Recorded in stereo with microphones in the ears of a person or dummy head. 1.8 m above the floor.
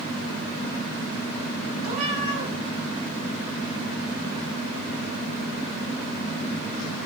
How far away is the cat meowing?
About 7.5 m.